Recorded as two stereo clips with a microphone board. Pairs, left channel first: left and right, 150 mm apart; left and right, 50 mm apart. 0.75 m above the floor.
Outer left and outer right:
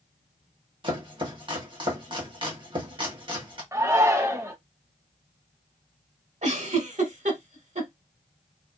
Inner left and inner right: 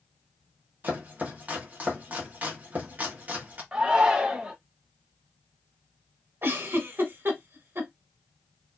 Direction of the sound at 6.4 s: 55° right (ahead or behind).